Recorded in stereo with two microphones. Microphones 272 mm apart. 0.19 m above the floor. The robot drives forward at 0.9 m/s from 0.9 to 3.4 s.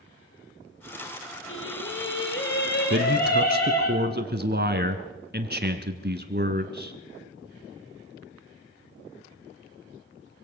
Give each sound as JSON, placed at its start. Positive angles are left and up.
{"t": 1.5, "sound": "singing", "side_deg": 50, "distance_m": 3.5}
{"t": 2.9, "sound": "a man speaking", "side_deg": -45, "distance_m": 1.5}